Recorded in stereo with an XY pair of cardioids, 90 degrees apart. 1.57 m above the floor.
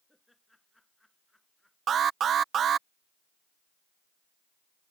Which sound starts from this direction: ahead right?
An alarm, at 1.9 s.